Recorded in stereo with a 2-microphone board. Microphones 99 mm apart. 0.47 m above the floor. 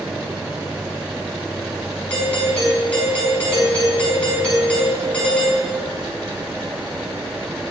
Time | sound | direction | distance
2.1 | a doorbell | 10° left (ahead or behind) | 5.5 m